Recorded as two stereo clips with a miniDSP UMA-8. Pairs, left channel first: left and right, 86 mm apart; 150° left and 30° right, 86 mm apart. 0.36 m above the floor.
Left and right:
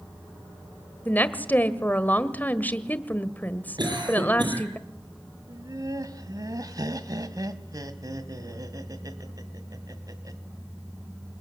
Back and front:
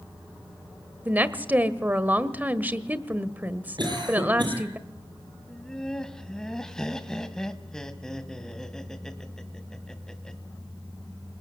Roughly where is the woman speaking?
Ahead left.